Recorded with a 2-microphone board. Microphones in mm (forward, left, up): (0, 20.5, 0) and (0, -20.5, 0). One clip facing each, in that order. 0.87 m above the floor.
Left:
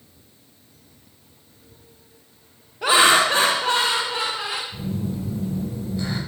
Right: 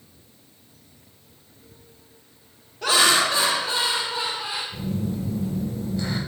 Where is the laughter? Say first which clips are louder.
Left 4 dB; 20° left (ahead or behind), 0.7 m; by 4.6 s 65° left (ahead or behind), 1.2 m.